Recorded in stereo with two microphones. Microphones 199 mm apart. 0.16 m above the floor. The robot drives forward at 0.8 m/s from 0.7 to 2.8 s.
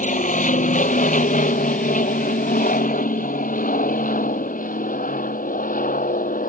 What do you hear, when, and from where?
0.0 s an aircraft: 40° left (ahead or behind)